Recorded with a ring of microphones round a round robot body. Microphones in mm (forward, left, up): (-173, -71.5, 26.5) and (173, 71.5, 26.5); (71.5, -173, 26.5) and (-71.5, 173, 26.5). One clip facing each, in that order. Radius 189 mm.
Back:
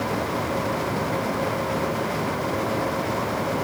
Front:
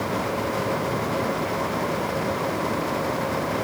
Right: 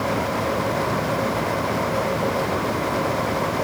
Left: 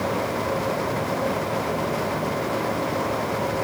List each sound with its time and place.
Only background noise.